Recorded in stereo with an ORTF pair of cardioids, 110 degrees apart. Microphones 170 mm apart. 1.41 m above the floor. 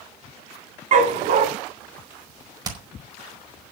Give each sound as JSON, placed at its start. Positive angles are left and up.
{"t": 0.9, "sound": "a dog barking", "azimuth_deg": -50, "distance_m": 3.5}
{"t": 2.6, "sound": "hammering", "azimuth_deg": -25, "distance_m": 5.0}